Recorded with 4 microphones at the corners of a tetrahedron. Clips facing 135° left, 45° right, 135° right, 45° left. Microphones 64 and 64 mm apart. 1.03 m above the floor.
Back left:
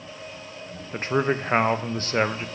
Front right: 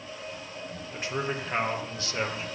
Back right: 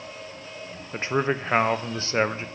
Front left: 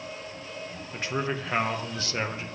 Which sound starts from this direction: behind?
A man speaking, at 0.9 s.